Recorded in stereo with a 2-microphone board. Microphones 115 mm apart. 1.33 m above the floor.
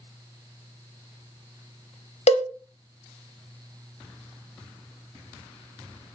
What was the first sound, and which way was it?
A cowbell, 80° left.